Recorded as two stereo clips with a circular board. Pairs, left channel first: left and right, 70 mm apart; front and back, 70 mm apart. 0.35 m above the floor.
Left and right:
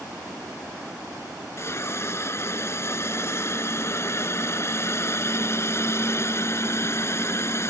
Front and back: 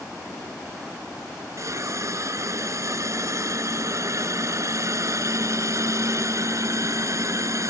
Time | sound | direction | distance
1.6 | a hiss | 140° left | ?